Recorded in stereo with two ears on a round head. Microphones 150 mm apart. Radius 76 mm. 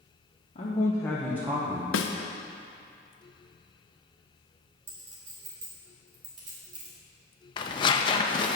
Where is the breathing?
No breathing in this recording.